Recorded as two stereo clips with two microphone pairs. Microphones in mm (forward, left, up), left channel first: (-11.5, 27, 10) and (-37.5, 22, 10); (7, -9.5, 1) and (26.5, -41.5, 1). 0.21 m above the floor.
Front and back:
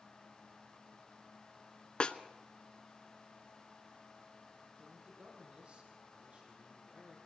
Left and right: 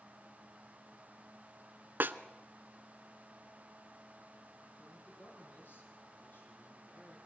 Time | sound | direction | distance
2.0 | a snare drum | 30° right | 0.8 m
4.8 | a man speaking | 155° left | 9 m